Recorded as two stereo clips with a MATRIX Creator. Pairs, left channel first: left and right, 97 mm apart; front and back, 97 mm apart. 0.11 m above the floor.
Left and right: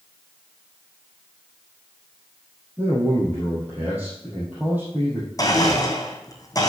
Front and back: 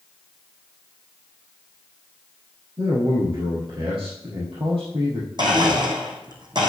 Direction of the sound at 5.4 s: 145° left.